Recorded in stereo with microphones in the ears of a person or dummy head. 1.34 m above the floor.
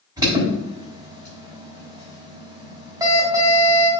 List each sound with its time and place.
0.2 s an alarm: 20° right (ahead or behind), 4.5 m